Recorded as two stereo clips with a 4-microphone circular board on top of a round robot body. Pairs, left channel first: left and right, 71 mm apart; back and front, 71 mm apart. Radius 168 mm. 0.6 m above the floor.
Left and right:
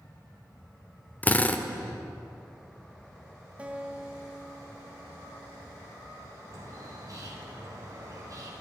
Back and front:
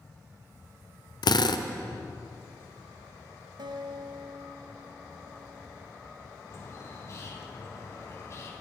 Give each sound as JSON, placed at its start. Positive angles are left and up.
{"t": 1.2, "sound": "a drill", "azimuth_deg": 160, "distance_m": 1.2}
{"t": 3.6, "sound": "a guitar", "azimuth_deg": -15, "distance_m": 1.6}
{"t": 6.5, "sound": "a bird", "azimuth_deg": -130, "distance_m": 4.0}